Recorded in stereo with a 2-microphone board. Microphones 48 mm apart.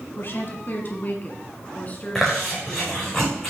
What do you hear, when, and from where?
0.2 s a woman speaking: 50° left (ahead or behind), 1.6 m; by 3.1 s 25° left (ahead or behind), 2.5 m
2.1 s chewing: 10° left (ahead or behind), 5 m